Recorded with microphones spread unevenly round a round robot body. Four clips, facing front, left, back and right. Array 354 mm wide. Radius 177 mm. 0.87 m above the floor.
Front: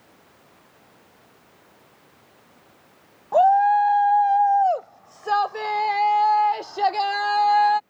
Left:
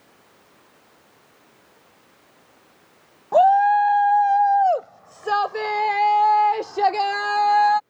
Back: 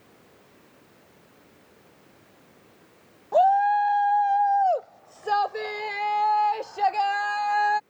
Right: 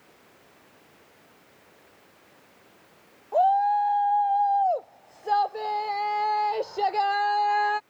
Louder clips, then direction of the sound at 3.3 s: Left 6 dB, front 3 dB; 75° left.